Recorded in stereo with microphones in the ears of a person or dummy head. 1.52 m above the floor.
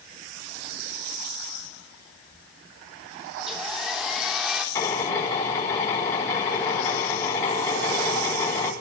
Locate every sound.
3.4 s a hair dryer: centre (ahead or behind), 3 m
4.8 s a drill: 15° left (ahead or behind), 8.5 m